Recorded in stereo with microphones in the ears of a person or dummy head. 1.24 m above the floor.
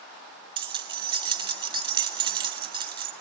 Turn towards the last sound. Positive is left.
turn(degrees=-30)  # may be behind; listen again after turning